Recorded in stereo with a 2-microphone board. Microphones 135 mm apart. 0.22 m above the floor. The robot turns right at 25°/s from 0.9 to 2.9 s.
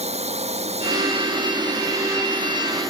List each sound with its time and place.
0.0 s a drone: 50° right; by 2.9 s straight ahead